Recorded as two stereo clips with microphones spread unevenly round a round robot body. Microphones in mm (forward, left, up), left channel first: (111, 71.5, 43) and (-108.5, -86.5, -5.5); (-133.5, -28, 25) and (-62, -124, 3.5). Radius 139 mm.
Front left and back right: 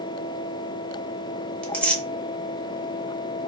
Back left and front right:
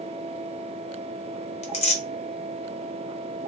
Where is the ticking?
I don't hear ticking.